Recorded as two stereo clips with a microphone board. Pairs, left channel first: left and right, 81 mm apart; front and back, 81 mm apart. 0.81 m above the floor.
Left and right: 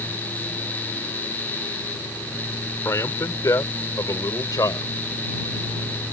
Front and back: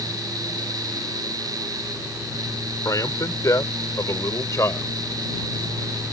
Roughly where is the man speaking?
Ahead left.